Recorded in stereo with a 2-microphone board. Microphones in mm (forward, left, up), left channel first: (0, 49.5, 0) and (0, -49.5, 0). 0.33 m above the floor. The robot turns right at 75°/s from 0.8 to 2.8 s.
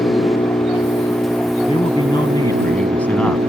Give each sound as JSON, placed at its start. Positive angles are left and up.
{"t": 0.0, "sound": "an engine running", "azimuth_deg": 120}
{"t": 1.7, "sound": "a man speaking", "azimuth_deg": 80}